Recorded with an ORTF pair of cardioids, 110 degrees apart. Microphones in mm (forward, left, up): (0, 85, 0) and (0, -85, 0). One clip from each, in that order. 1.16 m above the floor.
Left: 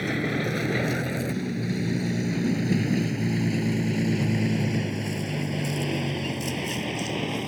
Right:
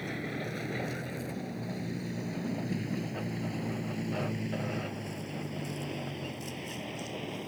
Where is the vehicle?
55° left; by 7.5 s 60° left.